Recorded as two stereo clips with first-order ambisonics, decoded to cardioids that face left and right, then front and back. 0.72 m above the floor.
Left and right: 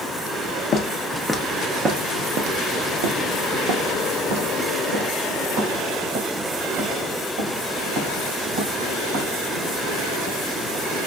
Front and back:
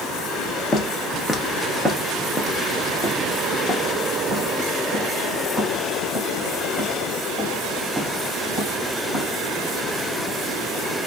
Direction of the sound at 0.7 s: 55° left.